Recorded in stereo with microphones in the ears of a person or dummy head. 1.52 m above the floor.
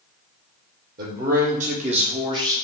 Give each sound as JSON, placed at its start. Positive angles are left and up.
{"t": 1.0, "sound": "a man speaking", "side_deg": -50, "distance_m": 1.6}